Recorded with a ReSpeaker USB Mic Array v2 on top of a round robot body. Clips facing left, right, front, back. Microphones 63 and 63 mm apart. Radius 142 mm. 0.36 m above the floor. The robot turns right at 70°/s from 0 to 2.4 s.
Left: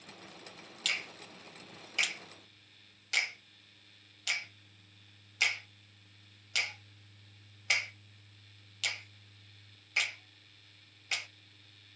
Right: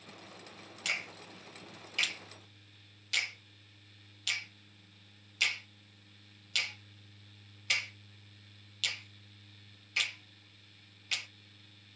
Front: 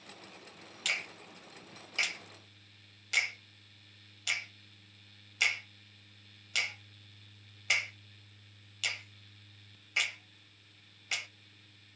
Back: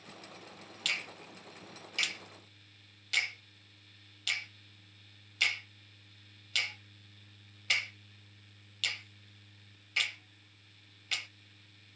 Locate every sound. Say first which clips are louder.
0.8 s a finger snap: even, front 1 dB; 55° right, 1.1 m; by 11.3 s 50° left, 1.1 m